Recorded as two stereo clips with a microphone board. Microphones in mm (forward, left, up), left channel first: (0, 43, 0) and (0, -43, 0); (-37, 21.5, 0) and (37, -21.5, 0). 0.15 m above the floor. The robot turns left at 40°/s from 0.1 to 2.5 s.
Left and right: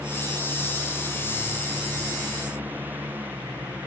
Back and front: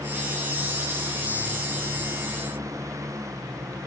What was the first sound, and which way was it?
Only background noise.